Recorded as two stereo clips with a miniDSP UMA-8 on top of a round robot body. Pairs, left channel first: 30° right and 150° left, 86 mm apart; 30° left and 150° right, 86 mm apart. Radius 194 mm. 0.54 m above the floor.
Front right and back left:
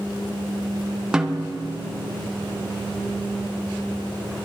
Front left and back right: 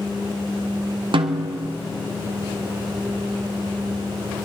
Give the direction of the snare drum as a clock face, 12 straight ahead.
4 o'clock.